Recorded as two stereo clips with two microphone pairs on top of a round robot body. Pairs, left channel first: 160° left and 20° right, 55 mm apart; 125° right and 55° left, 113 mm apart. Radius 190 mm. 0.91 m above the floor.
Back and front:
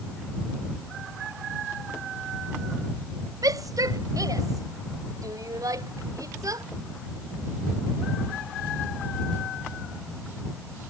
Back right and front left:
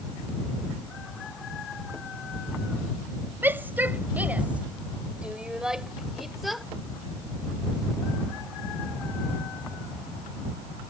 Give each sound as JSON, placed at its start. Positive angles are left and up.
{"t": 3.4, "sound": "a shout", "azimuth_deg": -20}